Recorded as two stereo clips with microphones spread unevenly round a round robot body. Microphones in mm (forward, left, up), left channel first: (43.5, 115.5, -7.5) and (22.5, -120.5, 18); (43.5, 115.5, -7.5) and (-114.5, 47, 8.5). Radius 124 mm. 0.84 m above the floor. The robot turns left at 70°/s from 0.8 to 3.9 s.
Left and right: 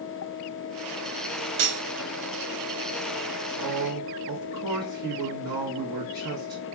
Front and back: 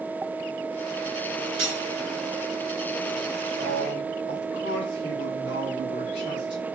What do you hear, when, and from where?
1.6 s cutlery clinking: 110° right, 0.6 m; by 1.8 s 130° right, 0.6 m
3.6 s a man speaking: 35° right, 1.2 m; by 6.7 s 55° right, 1.2 m